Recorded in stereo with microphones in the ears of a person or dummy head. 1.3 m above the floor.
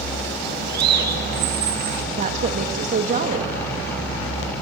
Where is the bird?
55° right (ahead or behind), 2 m.